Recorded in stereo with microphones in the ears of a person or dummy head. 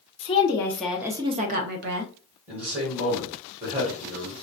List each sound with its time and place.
0.2 s a woman speaking: 25° left (ahead or behind), 0.7 m; by 2.1 s 60° right (ahead or behind), 0.7 m
2.5 s a man speaking: 30° right (ahead or behind), 1.4 m